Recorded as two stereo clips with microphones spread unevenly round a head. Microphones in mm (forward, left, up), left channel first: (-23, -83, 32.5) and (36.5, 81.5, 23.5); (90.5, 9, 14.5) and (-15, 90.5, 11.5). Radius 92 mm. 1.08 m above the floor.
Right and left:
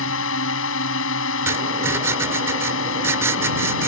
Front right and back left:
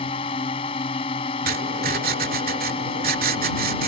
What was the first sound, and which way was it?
A drone, 100° right.